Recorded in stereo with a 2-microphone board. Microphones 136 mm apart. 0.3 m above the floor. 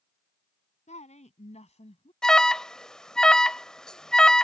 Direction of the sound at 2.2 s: 5° left (ahead or behind).